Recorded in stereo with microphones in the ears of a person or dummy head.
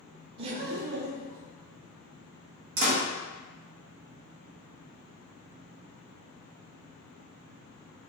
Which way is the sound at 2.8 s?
55° right (ahead or behind).